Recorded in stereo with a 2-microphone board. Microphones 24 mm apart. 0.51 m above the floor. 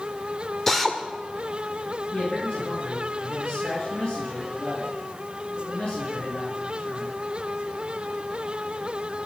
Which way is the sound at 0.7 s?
10° left (ahead or behind).